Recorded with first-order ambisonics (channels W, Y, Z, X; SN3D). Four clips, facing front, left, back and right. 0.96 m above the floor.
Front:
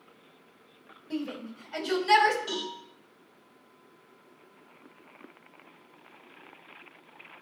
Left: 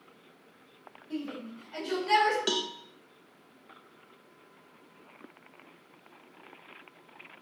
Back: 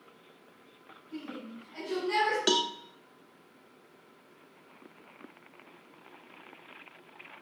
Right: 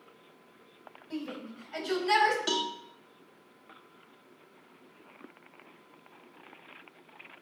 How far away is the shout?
About 4.5 m.